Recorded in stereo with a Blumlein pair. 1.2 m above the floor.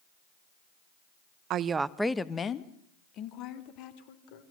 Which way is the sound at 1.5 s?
35° right.